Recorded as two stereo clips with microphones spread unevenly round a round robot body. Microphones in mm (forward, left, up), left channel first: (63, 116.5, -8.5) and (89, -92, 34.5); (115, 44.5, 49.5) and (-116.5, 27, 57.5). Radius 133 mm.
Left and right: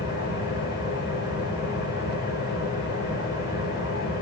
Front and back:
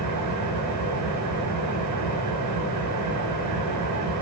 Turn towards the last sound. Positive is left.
turn(degrees=-160)